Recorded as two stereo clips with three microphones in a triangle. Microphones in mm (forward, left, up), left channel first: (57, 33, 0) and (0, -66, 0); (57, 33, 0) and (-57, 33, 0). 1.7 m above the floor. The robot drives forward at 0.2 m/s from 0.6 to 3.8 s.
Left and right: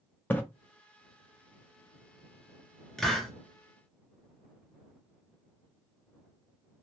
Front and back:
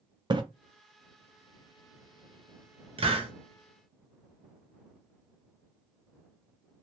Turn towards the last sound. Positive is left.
turn(degrees=150)